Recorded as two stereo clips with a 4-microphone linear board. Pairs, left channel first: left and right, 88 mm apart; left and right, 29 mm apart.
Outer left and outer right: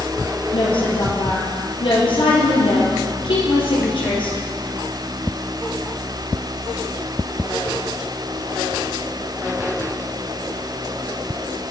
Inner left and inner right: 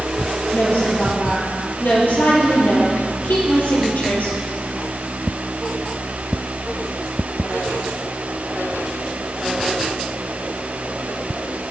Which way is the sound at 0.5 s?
75° left (ahead or behind).